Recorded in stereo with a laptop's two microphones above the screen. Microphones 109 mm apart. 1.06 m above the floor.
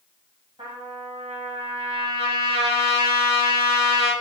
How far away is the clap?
No clap in this recording.